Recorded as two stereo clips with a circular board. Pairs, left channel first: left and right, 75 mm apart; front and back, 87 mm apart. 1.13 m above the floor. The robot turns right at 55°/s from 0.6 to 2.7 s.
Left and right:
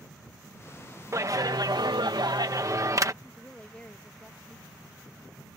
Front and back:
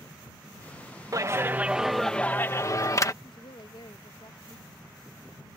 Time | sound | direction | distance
1.1 | a clap | 135° right | ?
3.2 | a woman speaking | 15° left | ?